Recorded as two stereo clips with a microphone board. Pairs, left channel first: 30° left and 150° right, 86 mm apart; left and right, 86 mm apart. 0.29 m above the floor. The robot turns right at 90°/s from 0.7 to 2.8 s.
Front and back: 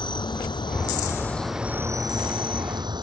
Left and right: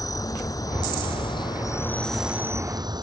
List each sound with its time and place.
0.0 s an insect: 50° left; by 3.0 s 125° right